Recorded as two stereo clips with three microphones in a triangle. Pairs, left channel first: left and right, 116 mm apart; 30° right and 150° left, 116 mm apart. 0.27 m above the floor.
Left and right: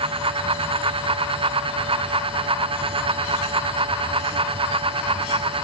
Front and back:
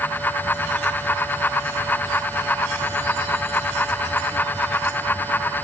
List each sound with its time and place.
Only background noise.